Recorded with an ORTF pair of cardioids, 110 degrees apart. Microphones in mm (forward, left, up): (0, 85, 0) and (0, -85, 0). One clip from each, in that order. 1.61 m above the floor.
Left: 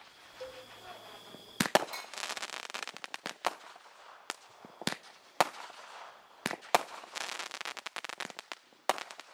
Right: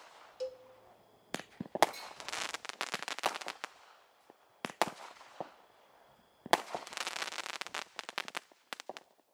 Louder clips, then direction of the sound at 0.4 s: Right 4 dB; 30° right.